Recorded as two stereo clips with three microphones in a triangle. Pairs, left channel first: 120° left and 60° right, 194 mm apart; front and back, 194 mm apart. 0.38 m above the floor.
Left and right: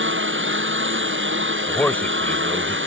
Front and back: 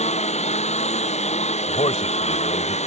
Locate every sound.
0.0 s a lawn mower: 55° right
1.7 s a man speaking: 40° left